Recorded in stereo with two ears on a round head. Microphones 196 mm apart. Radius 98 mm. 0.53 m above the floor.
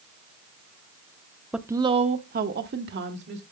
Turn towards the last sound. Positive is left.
turn(degrees=-50)  # may be behind; listen again after turning